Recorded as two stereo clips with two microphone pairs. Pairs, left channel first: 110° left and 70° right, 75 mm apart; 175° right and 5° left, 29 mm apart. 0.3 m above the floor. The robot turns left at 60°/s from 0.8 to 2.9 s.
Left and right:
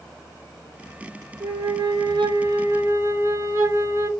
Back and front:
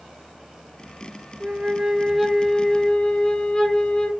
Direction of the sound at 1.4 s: 30° right.